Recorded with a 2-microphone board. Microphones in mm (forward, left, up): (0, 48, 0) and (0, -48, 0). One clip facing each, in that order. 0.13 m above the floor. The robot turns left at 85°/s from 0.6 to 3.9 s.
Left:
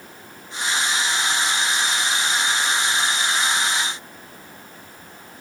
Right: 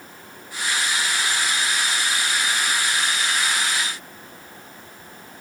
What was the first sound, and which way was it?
Only background noise.